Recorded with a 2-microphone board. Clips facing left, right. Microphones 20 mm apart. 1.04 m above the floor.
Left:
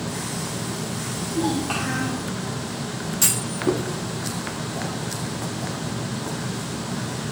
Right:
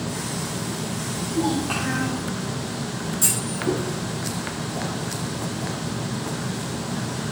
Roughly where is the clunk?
Left.